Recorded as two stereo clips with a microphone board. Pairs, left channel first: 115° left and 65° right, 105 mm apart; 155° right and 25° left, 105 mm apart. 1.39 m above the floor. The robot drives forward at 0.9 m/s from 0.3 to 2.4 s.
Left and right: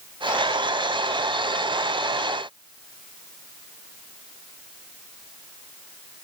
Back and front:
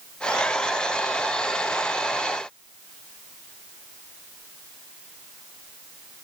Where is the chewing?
I don't hear chewing.